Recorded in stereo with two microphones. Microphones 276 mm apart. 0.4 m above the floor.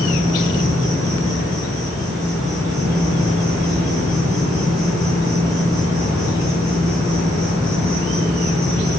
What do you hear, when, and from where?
0.0 s an insect: 55° right (ahead or behind), 2.5 m